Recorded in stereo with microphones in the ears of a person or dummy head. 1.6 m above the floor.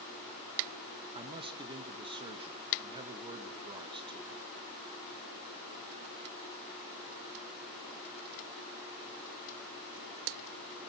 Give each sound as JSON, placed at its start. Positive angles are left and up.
{"t": 1.1, "sound": "a man speaking", "side_deg": -35, "distance_m": 1.9}